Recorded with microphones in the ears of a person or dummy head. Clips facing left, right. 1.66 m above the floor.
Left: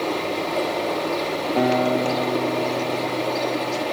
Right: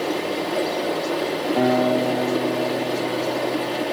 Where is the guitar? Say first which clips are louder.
Right 1 dB; centre (ahead or behind), 4.5 m.